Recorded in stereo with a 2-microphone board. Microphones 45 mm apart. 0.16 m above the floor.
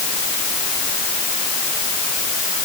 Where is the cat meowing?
No cat meowing in this recording.